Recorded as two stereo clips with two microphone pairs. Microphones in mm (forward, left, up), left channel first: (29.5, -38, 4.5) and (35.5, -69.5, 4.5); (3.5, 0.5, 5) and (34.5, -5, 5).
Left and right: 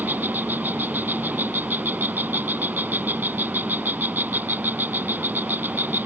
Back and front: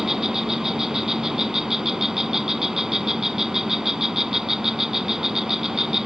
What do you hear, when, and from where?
0.0 s an insect: 90° right